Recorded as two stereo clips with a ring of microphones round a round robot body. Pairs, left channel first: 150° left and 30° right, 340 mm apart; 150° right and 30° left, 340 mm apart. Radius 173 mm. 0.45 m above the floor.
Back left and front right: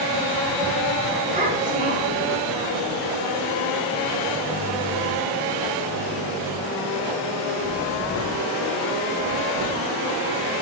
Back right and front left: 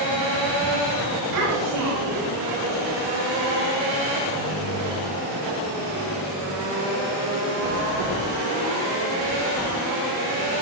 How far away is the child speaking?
About 7.5 m.